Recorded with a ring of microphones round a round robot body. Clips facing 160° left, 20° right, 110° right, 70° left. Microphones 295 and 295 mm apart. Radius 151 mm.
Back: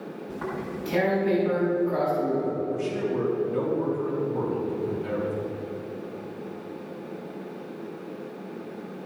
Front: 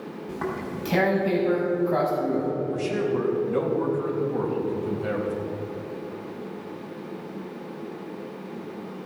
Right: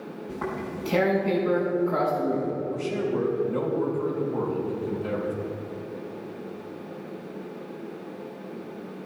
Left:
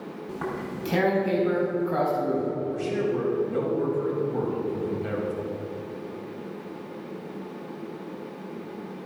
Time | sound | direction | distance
0.3 | tearing paper | 10° left | 4.5 m
2.7 | a man speaking | straight ahead | 4 m